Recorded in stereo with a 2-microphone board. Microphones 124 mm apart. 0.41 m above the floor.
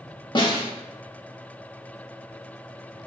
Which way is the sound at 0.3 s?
40° left (ahead or behind).